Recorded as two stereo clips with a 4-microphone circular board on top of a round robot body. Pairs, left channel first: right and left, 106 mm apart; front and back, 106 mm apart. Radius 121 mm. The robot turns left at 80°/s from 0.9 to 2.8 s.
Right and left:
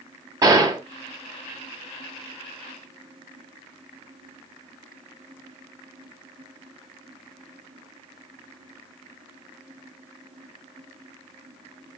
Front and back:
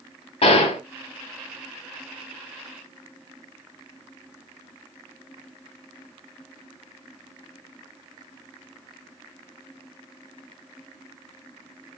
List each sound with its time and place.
0.4 s a gunshot: 30° left, 0.8 m